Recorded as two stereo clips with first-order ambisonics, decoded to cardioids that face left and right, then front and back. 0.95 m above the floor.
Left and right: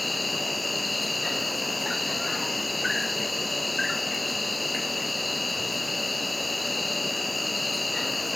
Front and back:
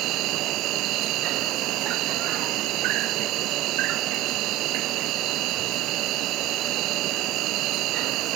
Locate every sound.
0.0 s an insect: 175° left